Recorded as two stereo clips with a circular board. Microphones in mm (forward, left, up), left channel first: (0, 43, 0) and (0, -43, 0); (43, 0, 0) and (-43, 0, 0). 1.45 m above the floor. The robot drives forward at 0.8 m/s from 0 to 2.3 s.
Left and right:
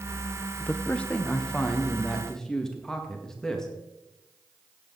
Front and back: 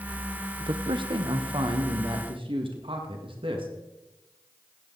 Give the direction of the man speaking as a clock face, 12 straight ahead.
7 o'clock.